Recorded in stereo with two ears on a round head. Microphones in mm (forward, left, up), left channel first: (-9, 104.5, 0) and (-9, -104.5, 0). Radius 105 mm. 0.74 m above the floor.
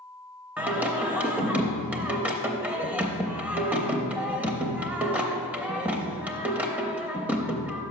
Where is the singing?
5° right (ahead or behind), 0.5 m.